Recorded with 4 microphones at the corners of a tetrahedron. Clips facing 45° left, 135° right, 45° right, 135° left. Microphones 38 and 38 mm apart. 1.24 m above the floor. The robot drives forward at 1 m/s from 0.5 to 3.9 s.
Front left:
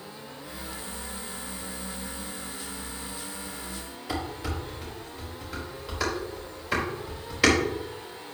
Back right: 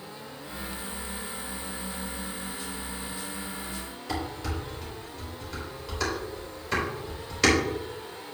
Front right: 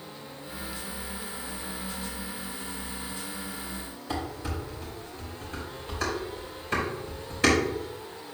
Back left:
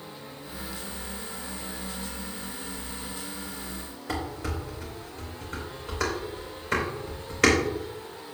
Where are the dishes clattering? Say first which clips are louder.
Even, back left 1 dB; 125° left, 4.5 m.